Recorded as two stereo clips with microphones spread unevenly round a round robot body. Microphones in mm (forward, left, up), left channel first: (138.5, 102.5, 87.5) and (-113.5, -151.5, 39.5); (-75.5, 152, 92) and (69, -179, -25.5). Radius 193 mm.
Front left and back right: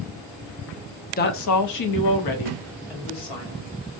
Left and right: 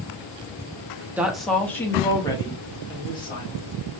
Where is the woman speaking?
15° right, 0.5 m; by 3.7 s 30° left, 1.8 m.